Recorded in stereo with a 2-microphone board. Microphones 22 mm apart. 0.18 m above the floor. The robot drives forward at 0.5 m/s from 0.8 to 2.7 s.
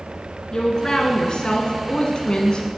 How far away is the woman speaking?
About 1.7 m.